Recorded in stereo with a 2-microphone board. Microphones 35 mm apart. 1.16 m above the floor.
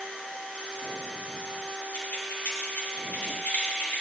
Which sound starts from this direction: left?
Keys jangling, at 1.9 s.